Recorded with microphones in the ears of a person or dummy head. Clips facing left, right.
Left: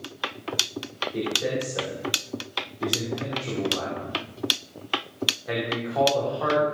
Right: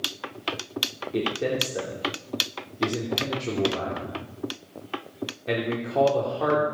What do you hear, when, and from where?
1.1 s a man speaking: 45° right (ahead or behind), 2.5 m